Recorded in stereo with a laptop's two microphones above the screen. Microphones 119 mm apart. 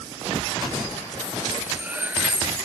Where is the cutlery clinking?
15° right (ahead or behind).